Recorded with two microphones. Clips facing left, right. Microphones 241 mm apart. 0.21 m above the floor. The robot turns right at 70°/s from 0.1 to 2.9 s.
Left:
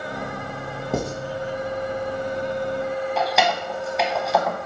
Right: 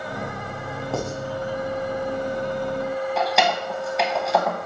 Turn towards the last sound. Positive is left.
turn(degrees=0)  # may be behind; listen again after turning